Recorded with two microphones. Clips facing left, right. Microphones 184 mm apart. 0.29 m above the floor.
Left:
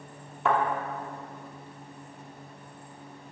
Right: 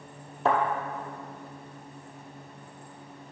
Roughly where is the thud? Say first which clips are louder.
Right 1 dB; right.